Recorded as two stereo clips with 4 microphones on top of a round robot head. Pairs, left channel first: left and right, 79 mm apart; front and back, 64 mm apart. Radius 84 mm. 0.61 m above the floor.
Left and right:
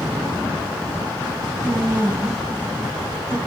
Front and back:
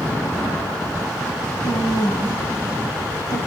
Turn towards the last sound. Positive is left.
turn(degrees=10)